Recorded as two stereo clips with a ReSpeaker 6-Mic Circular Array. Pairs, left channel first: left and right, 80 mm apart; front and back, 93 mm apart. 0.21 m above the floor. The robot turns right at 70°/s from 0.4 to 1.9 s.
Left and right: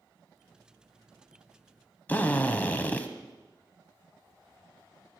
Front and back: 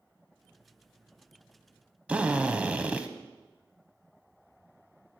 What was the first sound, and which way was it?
A drill, 120° left.